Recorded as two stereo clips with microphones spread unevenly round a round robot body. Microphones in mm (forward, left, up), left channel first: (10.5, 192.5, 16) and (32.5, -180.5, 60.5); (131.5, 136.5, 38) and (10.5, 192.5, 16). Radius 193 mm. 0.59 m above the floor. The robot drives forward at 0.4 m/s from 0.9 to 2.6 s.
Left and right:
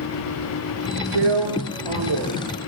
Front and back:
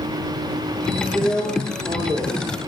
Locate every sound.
1.1 s a drill: 115° right, 5 m; by 2.3 s 120° right, 5 m